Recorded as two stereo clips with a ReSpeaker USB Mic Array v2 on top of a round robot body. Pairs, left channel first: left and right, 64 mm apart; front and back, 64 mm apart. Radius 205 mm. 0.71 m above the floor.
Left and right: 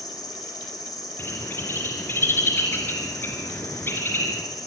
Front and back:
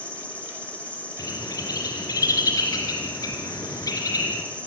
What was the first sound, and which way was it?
An insect, 70° left.